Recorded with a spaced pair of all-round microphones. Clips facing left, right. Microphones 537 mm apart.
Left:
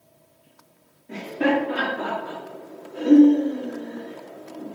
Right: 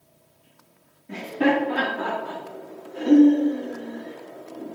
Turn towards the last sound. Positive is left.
turn(degrees=20)  # may be behind; listen again after turning